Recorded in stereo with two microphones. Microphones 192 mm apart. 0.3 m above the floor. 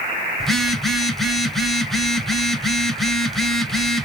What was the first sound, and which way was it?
A phone buzzing, centre (ahead or behind).